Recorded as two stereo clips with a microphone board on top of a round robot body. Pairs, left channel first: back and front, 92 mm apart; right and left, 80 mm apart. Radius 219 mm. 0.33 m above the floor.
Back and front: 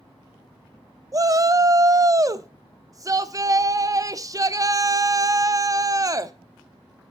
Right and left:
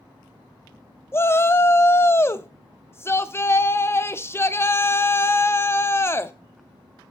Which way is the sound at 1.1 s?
40° right.